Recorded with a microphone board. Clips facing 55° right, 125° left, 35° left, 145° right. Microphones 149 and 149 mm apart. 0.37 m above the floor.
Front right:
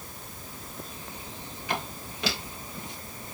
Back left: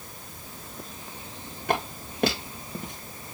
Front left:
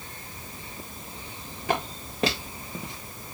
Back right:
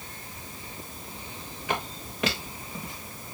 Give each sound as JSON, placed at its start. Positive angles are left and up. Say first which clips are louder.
{"t": 1.7, "sound": "footsteps", "louder": "back left 6 dB, front left 4 dB", "azimuth_deg": 85, "distance_m": 3.5}